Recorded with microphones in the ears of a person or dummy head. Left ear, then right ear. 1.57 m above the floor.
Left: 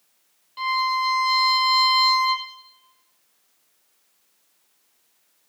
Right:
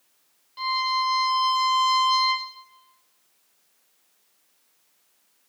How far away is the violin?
About 1.4 m.